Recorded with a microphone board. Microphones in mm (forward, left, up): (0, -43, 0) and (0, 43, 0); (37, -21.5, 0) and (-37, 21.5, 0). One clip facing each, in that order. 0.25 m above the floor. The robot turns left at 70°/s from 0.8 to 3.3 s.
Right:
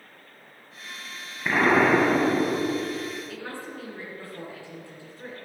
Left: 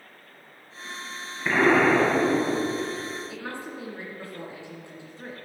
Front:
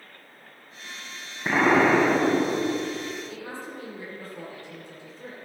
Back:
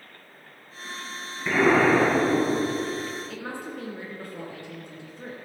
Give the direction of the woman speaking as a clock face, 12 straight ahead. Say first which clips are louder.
Left 1 dB, back 2 dB; 7 o'clock.